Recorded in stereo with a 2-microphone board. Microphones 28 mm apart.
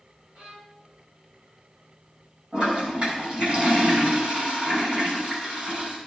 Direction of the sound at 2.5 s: 45° right (ahead or behind).